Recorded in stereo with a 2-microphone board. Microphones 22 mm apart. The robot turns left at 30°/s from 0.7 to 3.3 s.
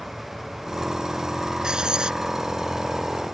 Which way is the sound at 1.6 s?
40° right (ahead or behind).